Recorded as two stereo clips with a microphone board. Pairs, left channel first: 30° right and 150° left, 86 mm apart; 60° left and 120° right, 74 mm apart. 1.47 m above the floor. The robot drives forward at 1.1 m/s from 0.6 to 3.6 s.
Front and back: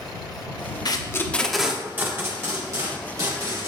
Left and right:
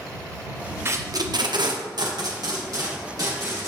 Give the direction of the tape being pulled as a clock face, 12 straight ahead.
2 o'clock.